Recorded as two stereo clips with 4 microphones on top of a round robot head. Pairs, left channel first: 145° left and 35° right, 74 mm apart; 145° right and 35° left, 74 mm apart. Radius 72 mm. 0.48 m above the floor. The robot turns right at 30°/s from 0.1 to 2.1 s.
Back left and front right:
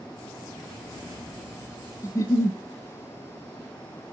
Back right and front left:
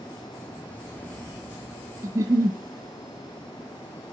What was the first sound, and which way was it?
A giggle, 90° left.